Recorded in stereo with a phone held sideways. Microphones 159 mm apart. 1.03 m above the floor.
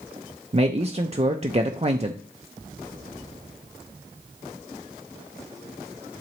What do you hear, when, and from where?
0.5 s a man speaking: 40° right (ahead or behind), 0.6 m